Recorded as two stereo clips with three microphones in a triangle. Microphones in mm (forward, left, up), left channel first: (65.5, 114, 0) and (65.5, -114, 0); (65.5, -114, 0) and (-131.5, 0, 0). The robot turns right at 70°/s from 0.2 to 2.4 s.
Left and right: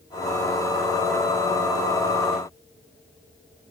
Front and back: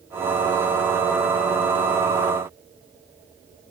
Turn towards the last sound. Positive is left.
No sound to turn to.